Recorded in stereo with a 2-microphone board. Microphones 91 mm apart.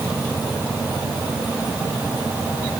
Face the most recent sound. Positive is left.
No sound to turn to.